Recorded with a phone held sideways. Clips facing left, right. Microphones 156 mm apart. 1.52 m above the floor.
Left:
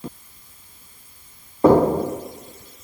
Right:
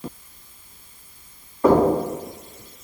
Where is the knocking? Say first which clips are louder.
Left 2 dB; 30° left (ahead or behind), 0.8 m.